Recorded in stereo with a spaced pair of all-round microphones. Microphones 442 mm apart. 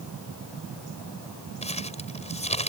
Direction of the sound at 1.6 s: 15° left (ahead or behind).